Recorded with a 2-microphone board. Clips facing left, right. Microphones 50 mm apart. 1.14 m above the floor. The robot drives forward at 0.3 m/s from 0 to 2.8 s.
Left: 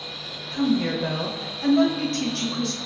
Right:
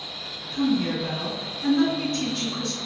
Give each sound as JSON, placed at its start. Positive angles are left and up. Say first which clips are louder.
{"t": 0.5, "sound": "a woman speaking", "louder": "left 1 dB", "side_deg": 85, "distance_m": 1.2}